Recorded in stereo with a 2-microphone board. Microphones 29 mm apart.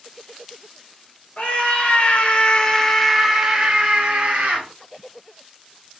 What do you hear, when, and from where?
1.4 s a scream: 65° left (ahead or behind), 1.1 m; by 4.7 s 45° right (ahead or behind), 1.0 m